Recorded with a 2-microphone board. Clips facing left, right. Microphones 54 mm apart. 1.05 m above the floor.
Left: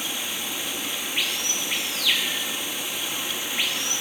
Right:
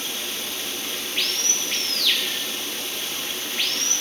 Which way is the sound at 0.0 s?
15° left (ahead or behind).